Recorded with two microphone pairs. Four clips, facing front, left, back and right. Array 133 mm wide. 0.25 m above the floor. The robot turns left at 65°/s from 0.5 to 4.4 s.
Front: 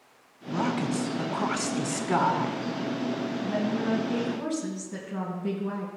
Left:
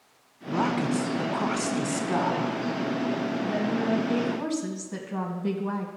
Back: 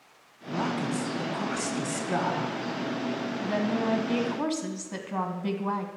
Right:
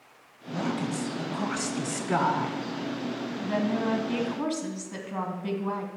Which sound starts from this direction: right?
A woman speaking, at 3.4 s.